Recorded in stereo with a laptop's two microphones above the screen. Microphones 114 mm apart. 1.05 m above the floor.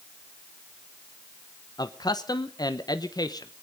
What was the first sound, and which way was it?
A man speaking, 40° left (ahead or behind).